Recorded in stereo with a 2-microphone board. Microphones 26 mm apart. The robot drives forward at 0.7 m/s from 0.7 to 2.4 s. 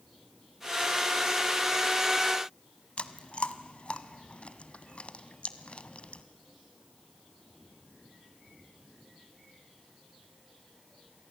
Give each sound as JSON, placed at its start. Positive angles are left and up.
{"t": 3.0, "sound": "chewing", "side_deg": 45, "distance_m": 1.1}